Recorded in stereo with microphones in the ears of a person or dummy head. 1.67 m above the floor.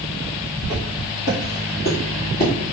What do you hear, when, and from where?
0.6 s footsteps: 25° left (ahead or behind), 1.7 m; by 2.5 s 40° left (ahead or behind), 2.5 m